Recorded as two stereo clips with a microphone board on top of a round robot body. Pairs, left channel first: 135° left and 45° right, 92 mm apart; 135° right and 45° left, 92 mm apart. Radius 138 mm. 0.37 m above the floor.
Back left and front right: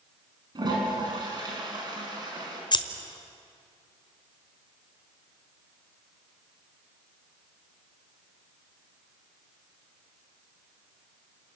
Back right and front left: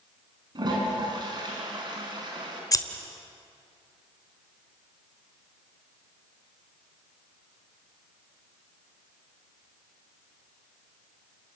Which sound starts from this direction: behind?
Scissors, at 2.7 s.